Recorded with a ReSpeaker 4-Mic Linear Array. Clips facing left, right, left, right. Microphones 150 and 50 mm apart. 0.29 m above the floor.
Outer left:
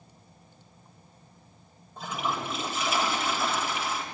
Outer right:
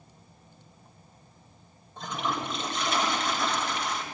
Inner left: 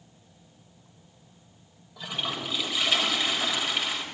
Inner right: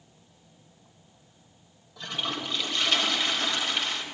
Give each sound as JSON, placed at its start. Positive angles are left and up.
{"t": 2.0, "sound": "a toilet flushing", "side_deg": 5, "distance_m": 1.4}